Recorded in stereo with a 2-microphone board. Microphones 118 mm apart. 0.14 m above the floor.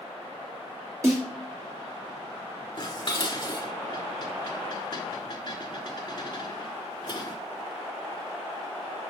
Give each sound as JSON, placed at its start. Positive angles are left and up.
{"t": 1.0, "sound": "a snare drum", "side_deg": -25, "distance_m": 3.0}
{"t": 2.8, "sound": "dishes clattering", "side_deg": 40, "distance_m": 1.1}